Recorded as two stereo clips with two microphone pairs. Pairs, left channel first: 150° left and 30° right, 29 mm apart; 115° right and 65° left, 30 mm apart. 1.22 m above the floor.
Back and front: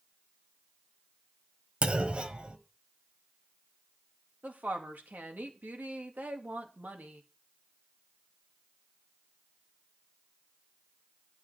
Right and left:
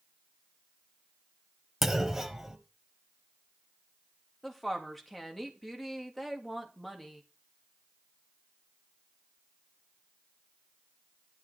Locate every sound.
1.8 s a clunk: 10° right, 1.2 m
4.4 s a woman speaking: 30° right, 2 m